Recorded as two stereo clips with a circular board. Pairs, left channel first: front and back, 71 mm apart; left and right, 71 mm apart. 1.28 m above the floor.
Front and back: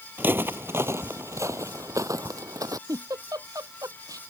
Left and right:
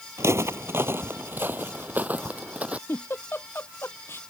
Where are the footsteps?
125° right; by 2.8 s 160° right.